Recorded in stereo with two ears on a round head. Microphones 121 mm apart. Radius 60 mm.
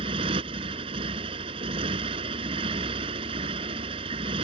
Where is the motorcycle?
40° right (ahead or behind).